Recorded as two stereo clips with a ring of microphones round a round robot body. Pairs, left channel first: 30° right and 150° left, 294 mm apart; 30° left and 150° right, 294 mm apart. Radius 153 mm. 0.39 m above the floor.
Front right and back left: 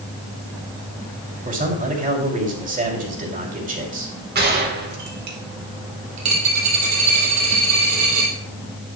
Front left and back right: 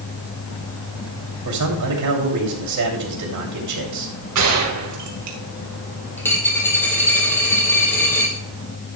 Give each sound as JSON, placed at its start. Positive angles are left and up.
{"t": 1.4, "sound": "a man speaking", "azimuth_deg": -150, "distance_m": 3.0}
{"t": 4.3, "sound": "a gunshot", "azimuth_deg": -155, "distance_m": 2.0}
{"t": 6.2, "sound": "a dropped coin", "azimuth_deg": 115, "distance_m": 3.0}